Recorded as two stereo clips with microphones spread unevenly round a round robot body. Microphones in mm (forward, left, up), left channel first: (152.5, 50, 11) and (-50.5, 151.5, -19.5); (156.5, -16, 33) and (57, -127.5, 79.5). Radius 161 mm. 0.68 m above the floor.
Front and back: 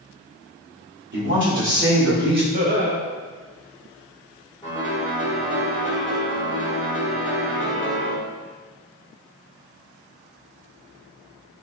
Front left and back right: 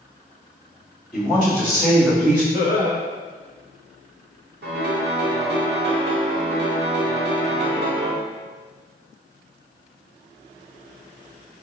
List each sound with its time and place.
1.1 s a woman speaking: 125° left, 1.4 m
2.5 s laughter: 145° left, 0.7 m
4.6 s a piano: 115° right, 0.8 m